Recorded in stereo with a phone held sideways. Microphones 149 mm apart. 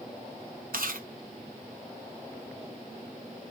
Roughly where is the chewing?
Right.